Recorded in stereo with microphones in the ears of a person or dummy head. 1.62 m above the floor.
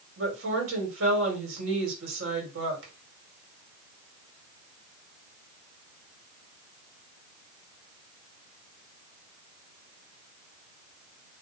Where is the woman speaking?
85° right, 2.5 m.